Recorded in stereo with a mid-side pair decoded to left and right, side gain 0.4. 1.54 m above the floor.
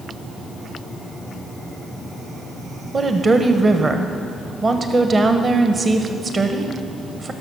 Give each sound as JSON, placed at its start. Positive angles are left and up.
{"t": 2.9, "sound": "a woman speaking", "azimuth_deg": -40, "distance_m": 1.0}